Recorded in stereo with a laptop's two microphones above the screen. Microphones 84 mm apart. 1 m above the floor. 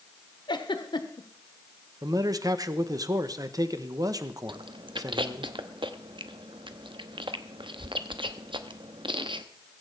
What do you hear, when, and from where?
0.5 s a giggle: 65° left (ahead or behind), 1.1 m
2.0 s a man speaking: 45° right (ahead or behind), 0.9 m
4.5 s chewing: 75° right (ahead or behind), 0.9 m